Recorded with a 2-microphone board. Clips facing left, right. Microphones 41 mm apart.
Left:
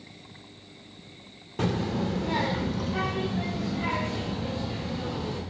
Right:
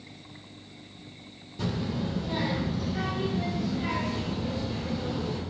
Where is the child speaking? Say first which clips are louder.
Left 3 dB; 55° left (ahead or behind), 0.6 m; by 5.4 s 35° left (ahead or behind), 2 m.